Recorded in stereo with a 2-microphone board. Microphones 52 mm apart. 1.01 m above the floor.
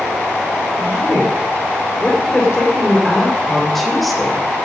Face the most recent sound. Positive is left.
turn(degrees=-5)  # may be behind; listen again after turning